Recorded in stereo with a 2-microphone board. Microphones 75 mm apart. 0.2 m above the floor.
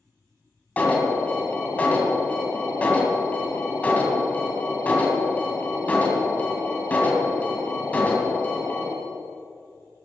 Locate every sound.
0.8 s an alarm: 20° left (ahead or behind), 1.7 m